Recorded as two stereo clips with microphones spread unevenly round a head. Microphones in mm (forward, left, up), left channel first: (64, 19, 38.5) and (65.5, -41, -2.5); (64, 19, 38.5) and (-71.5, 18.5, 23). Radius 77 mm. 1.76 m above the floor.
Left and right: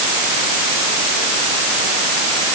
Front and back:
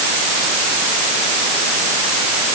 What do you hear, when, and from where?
Only background noise.